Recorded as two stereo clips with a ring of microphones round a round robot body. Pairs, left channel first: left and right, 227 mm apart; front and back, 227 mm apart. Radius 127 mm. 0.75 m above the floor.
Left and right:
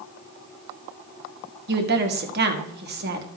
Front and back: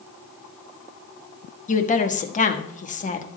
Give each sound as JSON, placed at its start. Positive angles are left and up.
{"t": 1.7, "sound": "a woman speaking", "azimuth_deg": -50, "distance_m": 1.5}